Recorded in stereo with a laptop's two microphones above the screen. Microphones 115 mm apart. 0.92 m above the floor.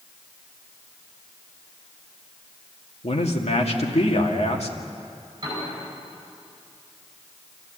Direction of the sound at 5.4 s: 35° right (ahead or behind).